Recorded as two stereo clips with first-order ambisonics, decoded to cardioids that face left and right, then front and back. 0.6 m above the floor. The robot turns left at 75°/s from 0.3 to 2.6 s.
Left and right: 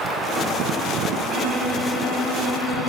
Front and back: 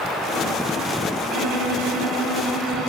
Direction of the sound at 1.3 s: 145° right.